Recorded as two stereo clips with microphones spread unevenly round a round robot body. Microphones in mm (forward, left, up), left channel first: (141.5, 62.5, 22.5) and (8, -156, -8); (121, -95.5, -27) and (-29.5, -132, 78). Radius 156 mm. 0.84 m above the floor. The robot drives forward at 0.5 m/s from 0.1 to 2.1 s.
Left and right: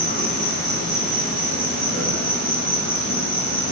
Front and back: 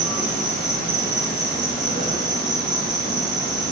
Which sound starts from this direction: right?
An insect, at 0.0 s.